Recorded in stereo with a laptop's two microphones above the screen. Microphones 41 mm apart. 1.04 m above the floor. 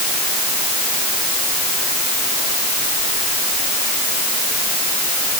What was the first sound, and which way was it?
Only background noise.